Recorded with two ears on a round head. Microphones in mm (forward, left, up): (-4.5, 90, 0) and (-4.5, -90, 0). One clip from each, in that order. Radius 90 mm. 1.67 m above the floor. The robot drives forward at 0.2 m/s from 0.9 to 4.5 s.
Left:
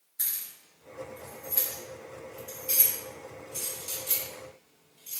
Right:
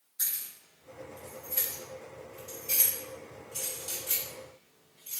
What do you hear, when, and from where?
0.2 s keys jangling: 25° left (ahead or behind), 1.5 m; by 5.2 s 15° left (ahead or behind), 2 m